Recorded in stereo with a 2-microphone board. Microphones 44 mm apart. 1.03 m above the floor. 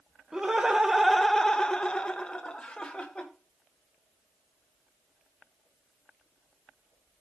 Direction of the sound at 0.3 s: 15° right (ahead or behind).